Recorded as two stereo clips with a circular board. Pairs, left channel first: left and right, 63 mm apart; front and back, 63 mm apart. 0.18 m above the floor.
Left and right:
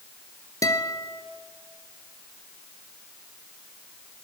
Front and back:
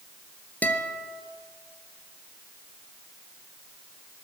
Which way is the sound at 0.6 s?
60° left.